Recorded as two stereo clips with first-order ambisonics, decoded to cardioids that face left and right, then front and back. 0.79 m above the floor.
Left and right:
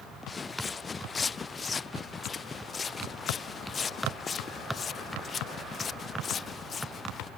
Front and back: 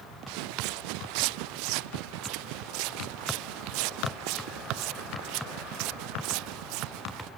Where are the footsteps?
165° left; by 7.3 s 155° left.